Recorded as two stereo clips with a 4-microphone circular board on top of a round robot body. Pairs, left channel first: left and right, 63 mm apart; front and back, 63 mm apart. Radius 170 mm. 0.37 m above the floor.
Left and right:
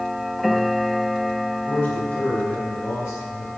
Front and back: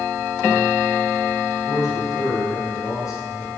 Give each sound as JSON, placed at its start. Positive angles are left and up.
{"t": 1.7, "sound": "a man speaking", "azimuth_deg": 30, "distance_m": 6.0}